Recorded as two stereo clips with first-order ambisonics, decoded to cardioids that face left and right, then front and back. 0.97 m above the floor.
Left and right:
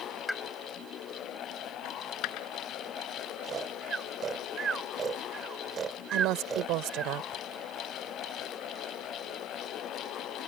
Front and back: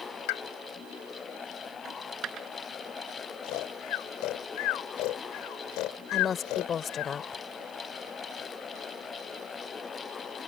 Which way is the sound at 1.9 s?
125° left.